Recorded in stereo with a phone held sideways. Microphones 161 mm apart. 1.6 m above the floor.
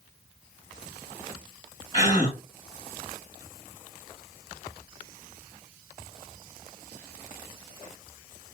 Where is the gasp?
40° left (ahead or behind), 1.8 m.